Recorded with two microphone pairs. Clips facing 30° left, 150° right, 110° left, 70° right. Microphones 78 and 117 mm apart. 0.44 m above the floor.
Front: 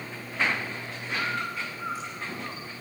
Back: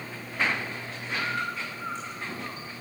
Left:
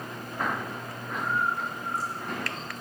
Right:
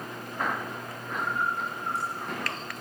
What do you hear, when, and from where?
1.2 s a bird: 55° right, 8 m